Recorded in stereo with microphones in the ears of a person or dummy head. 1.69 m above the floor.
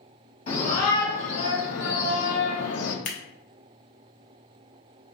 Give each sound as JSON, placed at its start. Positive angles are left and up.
{"t": 0.5, "sound": "a shout", "side_deg": 40, "distance_m": 1.6}
{"t": 3.0, "sound": "scissors", "side_deg": 45, "distance_m": 0.6}